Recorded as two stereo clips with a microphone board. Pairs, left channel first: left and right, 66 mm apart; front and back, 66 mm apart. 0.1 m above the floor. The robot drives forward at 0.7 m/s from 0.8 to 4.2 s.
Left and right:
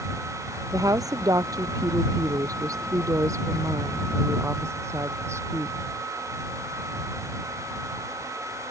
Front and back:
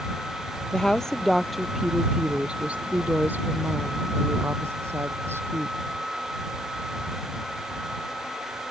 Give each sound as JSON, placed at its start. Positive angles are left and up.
{"t": 0.7, "sound": "a woman speaking", "azimuth_deg": -75}